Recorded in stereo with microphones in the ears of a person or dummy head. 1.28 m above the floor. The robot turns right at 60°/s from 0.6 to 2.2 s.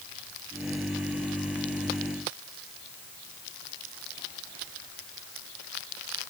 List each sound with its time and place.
Only background noise.